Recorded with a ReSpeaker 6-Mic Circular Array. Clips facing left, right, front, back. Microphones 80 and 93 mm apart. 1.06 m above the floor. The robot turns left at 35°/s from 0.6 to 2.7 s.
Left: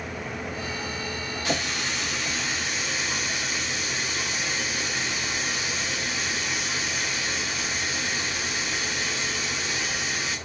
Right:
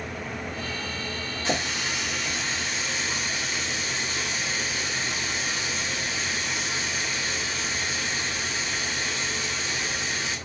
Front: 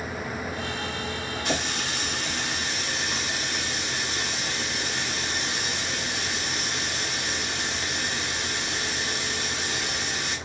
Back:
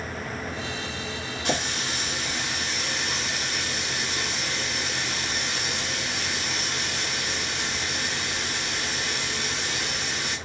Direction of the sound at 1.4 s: 150° right.